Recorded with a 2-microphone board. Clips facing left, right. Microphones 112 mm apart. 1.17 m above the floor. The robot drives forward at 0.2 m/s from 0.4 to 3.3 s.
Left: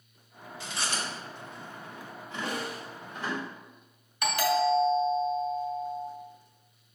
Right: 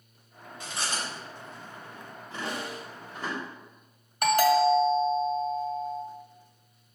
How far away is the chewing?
About 1.3 m.